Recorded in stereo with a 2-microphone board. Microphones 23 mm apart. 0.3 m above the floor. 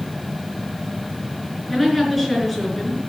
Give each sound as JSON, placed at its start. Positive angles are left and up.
{"t": 1.7, "sound": "a woman speaking", "side_deg": 0, "distance_m": 4.5}